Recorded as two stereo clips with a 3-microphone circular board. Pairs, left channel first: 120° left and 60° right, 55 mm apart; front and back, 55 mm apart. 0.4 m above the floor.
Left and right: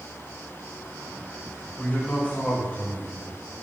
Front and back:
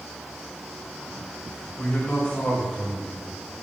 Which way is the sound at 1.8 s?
65° left.